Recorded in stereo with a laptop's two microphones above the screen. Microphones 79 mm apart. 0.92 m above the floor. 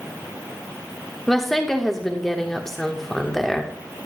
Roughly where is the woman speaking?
Centre.